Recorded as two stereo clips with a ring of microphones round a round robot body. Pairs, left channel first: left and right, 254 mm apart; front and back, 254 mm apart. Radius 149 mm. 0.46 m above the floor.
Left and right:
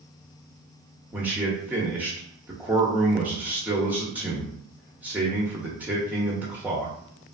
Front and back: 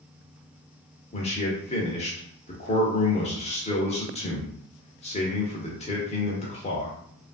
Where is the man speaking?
15° right, 0.8 m.